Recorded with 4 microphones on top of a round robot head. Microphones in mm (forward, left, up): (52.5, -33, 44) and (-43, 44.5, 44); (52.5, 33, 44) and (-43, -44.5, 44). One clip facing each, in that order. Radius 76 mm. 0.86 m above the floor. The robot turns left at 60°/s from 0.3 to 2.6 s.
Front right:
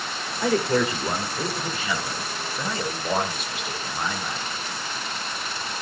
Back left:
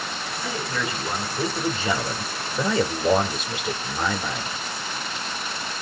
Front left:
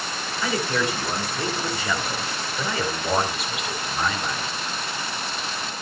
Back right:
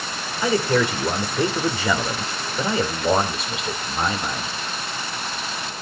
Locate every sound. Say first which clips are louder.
0.4 s a man speaking: front right 9 dB, back right 5 dB; 75° right, 3 m; by 4.5 s 155° left, 3 m